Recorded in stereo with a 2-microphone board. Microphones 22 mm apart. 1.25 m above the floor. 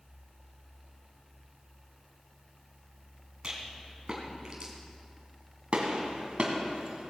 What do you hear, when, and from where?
3.4 s a rattle: 35° right (ahead or behind), 3.5 m
5.7 s a gunshot: 50° right (ahead or behind), 2.5 m